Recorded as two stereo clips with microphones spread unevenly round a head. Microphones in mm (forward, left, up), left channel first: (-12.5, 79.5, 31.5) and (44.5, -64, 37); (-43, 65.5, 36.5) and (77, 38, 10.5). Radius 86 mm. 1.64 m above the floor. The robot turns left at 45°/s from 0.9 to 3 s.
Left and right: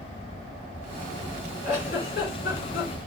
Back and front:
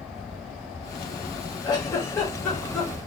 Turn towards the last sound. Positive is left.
turn(degrees=85)